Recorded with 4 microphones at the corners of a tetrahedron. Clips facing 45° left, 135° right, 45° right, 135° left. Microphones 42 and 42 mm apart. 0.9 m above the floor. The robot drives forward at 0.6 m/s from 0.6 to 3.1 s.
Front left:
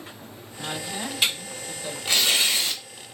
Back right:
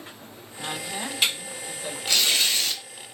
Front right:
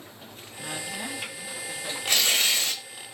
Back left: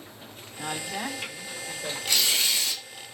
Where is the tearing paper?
15° right, 1.0 m; by 2.8 s 30° right, 0.7 m.